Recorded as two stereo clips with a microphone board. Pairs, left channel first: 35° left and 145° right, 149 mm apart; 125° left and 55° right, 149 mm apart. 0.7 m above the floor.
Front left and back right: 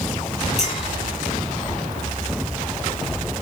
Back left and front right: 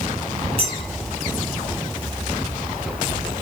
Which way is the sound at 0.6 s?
10° right.